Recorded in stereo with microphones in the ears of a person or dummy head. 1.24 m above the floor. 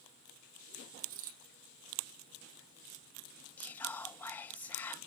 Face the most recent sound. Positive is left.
turn(degrees=15)  # may be behind; listen again after turning